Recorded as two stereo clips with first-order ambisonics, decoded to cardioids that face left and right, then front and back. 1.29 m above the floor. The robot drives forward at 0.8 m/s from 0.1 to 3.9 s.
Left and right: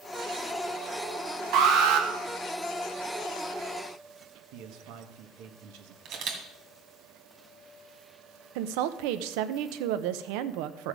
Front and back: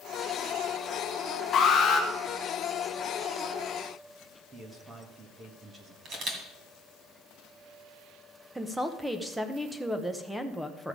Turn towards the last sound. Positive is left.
turn(degrees=-95)